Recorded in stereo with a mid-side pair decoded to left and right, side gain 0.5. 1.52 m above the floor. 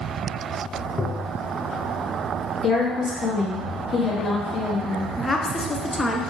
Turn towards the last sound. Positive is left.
turn(degrees=20)